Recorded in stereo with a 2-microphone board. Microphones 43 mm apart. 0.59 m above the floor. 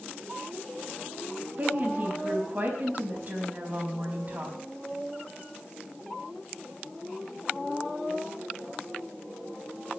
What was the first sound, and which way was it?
A woman speaking, 40° right (ahead or behind).